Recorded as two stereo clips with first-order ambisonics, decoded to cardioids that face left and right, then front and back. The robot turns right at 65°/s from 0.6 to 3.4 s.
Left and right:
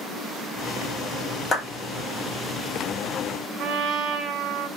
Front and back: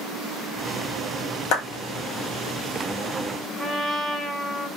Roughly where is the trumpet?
Right.